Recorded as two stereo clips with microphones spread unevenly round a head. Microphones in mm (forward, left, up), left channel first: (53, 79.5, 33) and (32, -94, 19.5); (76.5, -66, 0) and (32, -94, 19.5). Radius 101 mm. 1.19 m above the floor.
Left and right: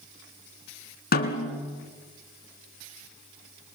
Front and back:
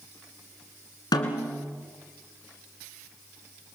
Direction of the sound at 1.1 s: 50° left.